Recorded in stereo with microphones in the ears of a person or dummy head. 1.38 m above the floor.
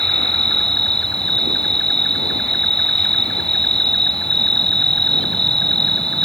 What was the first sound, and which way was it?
An insect, 10° left (ahead or behind).